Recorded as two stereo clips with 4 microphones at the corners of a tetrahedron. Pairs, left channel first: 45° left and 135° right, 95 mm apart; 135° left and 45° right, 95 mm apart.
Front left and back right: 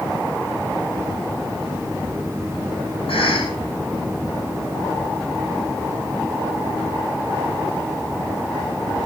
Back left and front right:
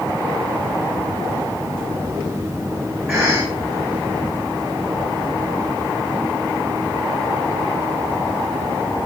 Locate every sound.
3.1 s a cough: 25° left, 6.5 m